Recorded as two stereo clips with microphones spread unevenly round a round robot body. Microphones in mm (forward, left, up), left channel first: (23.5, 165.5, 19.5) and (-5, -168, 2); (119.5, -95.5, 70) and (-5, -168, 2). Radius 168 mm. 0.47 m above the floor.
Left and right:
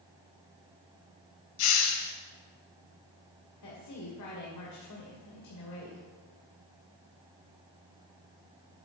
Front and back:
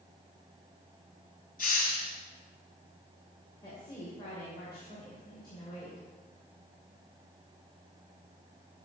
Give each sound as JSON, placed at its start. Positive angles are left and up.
{"t": 1.6, "sound": "a hiss", "azimuth_deg": 95, "distance_m": 1.8}
{"t": 3.6, "sound": "a woman speaking", "azimuth_deg": 115, "distance_m": 2.5}